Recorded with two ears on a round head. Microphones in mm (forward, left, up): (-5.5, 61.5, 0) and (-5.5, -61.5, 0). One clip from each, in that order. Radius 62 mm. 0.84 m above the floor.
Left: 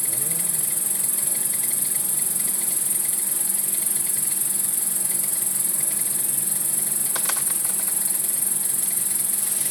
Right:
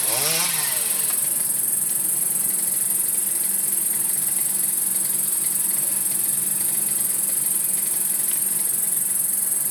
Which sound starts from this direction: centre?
An insect, at 0.0 s.